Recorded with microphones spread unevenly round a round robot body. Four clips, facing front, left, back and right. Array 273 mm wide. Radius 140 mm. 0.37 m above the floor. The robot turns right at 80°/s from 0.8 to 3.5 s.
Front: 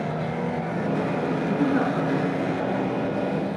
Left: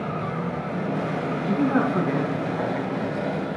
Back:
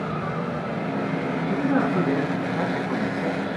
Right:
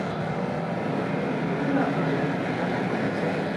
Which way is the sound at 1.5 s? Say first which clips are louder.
Left 5 dB, back 1 dB; 75° left.